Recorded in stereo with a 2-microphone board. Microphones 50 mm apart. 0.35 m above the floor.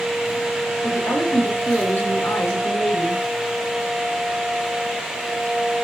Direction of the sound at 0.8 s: 50° left (ahead or behind).